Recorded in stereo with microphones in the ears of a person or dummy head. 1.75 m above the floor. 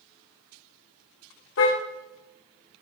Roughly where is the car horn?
Left.